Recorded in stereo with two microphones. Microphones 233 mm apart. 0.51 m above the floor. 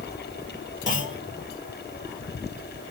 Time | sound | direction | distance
0.9 | a clunk | 55° left (ahead or behind) | 1.0 m